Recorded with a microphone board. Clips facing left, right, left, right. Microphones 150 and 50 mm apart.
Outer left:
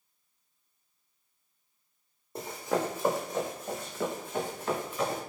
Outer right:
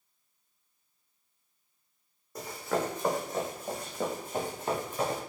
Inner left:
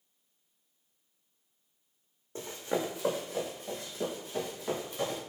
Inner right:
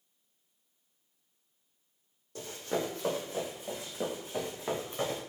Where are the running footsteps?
30° left (ahead or behind), 0.8 m; by 5.2 s 30° right (ahead or behind), 1.7 m.